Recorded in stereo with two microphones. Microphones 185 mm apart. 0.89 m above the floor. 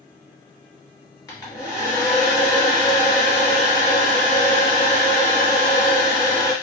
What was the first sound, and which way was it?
A hair dryer, 20° left (ahead or behind).